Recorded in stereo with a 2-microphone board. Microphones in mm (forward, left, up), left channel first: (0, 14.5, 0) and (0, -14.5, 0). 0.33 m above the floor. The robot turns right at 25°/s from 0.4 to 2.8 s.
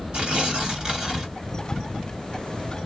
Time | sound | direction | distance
0.1 | tearing paper | 40° right (ahead or behind) | 1.6 m